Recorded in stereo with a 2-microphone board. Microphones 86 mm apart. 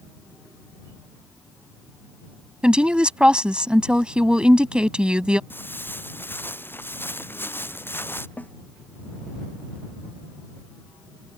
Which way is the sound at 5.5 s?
25° left (ahead or behind).